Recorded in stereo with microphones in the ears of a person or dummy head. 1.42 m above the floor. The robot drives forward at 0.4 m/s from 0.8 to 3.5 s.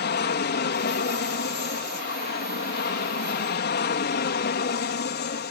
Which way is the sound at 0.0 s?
50° left (ahead or behind).